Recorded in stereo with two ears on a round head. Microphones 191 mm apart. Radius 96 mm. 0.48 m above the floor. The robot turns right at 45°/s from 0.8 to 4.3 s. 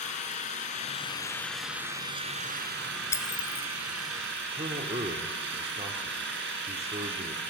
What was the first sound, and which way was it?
An engine running, 145° left.